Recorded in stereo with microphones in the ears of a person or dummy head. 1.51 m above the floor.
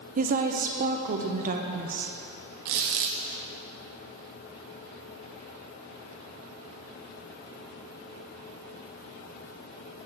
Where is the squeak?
45° right (ahead or behind), 0.7 m.